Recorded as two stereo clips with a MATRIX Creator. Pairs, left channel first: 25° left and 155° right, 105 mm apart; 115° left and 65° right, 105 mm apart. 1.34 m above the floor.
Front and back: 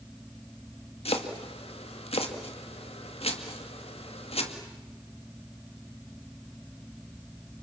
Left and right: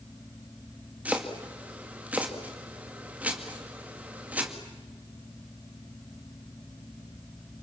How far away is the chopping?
About 2 m.